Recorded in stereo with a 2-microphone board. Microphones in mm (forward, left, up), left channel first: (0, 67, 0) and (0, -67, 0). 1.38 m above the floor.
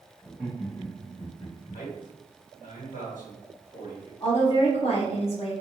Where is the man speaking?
85° left, 1.6 m.